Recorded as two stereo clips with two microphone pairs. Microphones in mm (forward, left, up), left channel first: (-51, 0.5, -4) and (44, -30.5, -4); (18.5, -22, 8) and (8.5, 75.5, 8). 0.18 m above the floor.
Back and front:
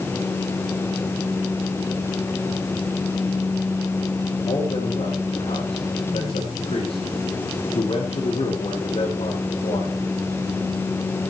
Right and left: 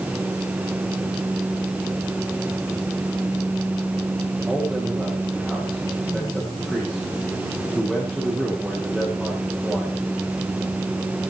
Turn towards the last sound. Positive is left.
turn(degrees=-175)